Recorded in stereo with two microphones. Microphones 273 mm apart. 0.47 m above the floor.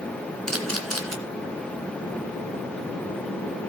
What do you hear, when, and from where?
0.5 s a camera shutter: 60° right (ahead or behind), 2 m